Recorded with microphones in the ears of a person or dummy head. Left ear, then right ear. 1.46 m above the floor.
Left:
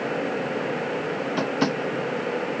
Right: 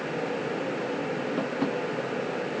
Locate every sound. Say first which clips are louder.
1.4 s tapping: left 6 dB; 70° left (ahead or behind)